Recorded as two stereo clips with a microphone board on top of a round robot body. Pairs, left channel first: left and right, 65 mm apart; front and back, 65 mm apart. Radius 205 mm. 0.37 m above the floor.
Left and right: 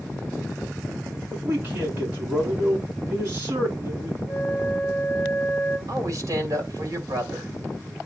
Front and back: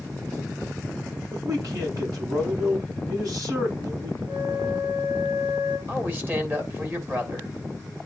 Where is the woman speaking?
125° right, 3 m.